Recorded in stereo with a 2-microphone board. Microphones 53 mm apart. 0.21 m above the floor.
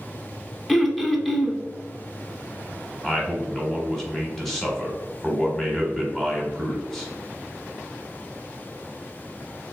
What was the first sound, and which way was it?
Throat clearing, centre (ahead or behind).